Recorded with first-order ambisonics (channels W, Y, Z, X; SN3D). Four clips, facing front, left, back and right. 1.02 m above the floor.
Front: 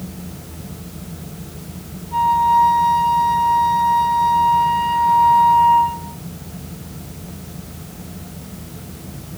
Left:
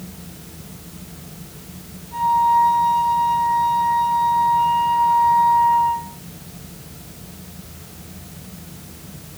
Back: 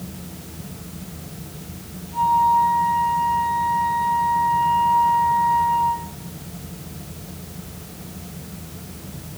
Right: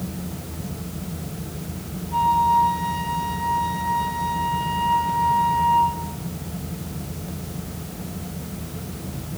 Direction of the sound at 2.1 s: 10° left.